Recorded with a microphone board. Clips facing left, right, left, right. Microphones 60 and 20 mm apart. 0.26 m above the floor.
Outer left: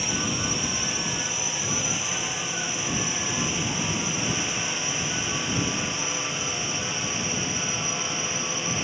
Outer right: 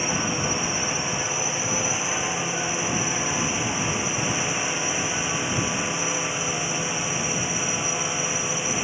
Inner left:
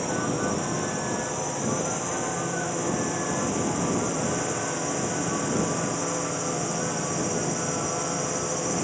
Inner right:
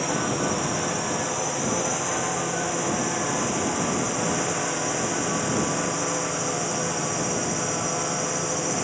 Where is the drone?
25° right (ahead or behind); by 8.8 s 15° right (ahead or behind).